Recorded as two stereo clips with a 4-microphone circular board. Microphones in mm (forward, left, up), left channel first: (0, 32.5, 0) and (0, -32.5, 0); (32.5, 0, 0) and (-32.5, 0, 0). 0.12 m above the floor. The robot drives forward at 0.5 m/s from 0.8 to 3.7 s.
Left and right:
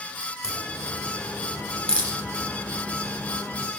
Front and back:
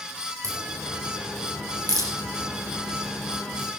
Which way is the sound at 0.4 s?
165° left.